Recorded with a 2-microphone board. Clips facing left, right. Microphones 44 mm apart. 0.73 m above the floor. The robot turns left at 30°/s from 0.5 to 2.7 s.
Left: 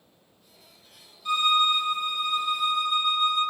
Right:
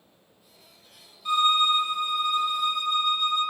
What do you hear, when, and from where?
1.2 s a violin: 150° right, 0.8 m; by 3.4 s 165° left, 0.8 m